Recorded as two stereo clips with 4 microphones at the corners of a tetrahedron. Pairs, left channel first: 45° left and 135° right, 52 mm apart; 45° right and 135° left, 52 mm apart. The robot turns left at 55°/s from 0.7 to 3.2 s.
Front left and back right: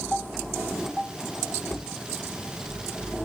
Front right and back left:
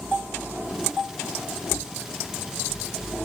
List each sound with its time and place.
1.7 s a cupboard door: 75° left, 1.4 m; by 1.9 s 60° left, 1.4 m